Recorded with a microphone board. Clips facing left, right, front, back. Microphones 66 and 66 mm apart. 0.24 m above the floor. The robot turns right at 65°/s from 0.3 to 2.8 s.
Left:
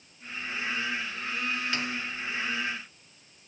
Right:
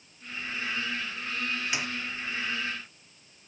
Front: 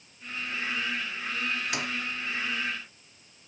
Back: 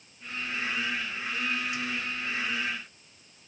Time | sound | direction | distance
1.7 | a snare drum | 15° right | ?